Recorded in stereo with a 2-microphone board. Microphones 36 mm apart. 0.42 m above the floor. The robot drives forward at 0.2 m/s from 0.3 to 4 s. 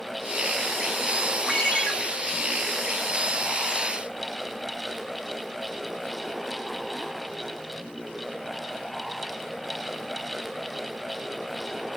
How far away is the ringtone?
About 0.7 m.